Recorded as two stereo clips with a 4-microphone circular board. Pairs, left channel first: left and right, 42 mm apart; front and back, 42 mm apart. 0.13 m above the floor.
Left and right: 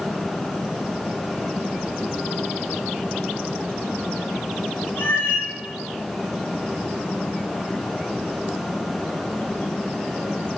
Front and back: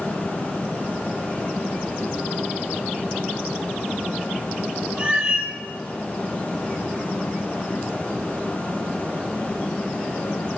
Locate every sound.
5.0 s a cat meowing: 110° left, 7.5 m